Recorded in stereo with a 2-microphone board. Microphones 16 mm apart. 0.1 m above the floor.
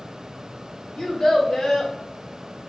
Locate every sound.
1.0 s a child speaking: 50° left (ahead or behind), 2.0 m